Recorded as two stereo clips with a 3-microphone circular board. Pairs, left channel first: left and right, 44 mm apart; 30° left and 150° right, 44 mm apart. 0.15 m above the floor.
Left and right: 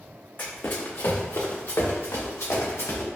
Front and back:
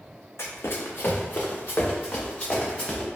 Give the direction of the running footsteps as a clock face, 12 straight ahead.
11 o'clock.